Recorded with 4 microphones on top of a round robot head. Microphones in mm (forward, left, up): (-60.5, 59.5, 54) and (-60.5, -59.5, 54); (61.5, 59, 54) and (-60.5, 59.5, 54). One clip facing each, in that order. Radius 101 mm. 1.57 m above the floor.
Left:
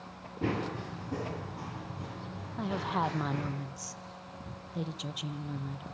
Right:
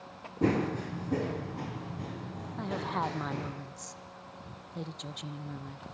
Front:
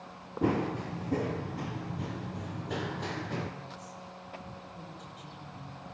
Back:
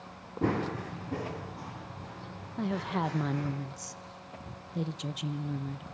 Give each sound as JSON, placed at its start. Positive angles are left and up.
{"t": 0.4, "sound": "running footsteps", "azimuth_deg": -85, "distance_m": 1.7}
{"t": 2.6, "sound": "a woman speaking", "azimuth_deg": 175, "distance_m": 1.5}